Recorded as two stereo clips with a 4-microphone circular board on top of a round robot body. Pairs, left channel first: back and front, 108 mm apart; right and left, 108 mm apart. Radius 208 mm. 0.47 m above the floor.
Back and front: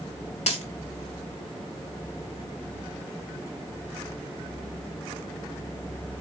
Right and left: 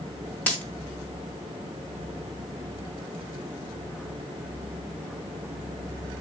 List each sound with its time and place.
0.5 s a dropped coin: 165° right, 6 m